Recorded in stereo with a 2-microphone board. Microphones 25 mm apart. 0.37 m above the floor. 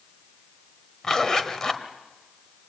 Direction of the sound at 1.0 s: 20° left (ahead or behind).